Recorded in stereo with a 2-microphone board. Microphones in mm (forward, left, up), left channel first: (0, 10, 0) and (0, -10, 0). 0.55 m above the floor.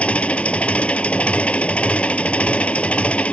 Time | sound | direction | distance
0.0 | an engine running | 80° left | ?